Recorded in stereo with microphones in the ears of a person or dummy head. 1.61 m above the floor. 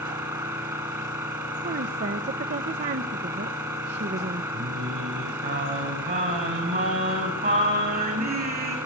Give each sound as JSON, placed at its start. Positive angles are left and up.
{"t": 0.0, "sound": "an engine running", "side_deg": -10, "distance_m": 5.0}
{"t": 1.6, "sound": "a woman speaking", "side_deg": -40, "distance_m": 1.3}
{"t": 4.5, "sound": "singing", "side_deg": -40, "distance_m": 6.5}